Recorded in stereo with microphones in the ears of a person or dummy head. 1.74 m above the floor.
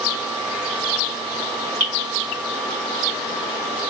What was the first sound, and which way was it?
Dripping, 65° right (ahead or behind).